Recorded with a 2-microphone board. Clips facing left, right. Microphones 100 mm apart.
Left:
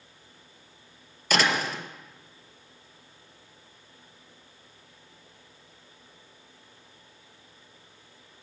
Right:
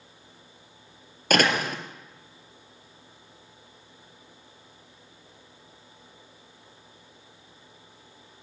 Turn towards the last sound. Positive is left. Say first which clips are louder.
# right 3 dB
turn(degrees=-55)  # may be behind; listen again after turning